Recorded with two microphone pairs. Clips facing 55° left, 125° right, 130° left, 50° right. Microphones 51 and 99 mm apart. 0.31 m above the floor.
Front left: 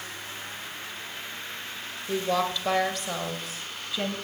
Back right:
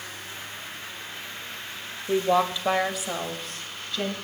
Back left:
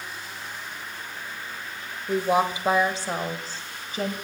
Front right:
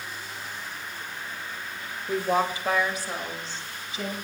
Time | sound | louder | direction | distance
2.1 | a woman speaking | back right 4 dB, back left 2 dB | 155° right | 1.0 m